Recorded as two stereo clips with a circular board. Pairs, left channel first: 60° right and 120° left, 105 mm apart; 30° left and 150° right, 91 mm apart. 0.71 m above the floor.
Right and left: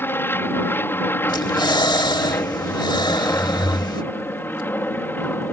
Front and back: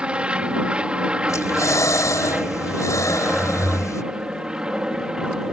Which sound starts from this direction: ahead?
Breathing, at 1.3 s.